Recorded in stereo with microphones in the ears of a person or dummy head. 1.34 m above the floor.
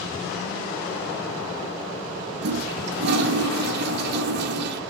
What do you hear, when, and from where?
2.4 s a toilet flushing: 65° right (ahead or behind), 1.4 m